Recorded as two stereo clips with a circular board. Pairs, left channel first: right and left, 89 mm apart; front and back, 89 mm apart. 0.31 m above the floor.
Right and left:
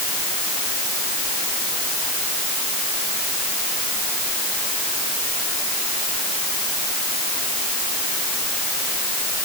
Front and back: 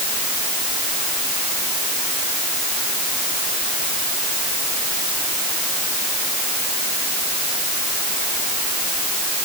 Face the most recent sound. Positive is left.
No sound to turn to.